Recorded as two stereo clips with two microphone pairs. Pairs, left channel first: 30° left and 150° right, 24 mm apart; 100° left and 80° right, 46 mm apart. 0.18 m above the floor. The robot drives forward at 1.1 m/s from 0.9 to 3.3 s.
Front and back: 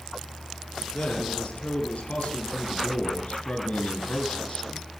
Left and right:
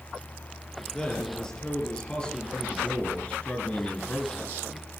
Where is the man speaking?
20° left, 5.5 m; by 4.8 s 35° left, 3.5 m.